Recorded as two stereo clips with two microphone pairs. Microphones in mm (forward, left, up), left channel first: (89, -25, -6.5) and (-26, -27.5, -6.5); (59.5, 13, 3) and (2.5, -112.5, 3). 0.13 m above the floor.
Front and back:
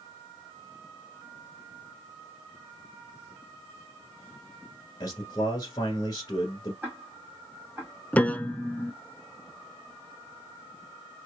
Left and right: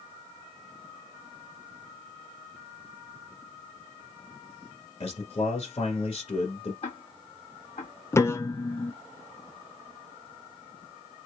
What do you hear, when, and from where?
5.0 s a man speaking: 40° left, 1.7 m
6.8 s ticking: 105° left, 1.7 m
8.1 s a piano: 35° left, 0.5 m